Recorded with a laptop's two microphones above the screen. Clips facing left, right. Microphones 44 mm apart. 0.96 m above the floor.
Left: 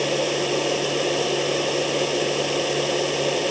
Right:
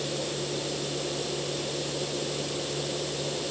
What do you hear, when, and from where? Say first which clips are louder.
0.0 s a machine running: left 10 dB; 70° left (ahead or behind)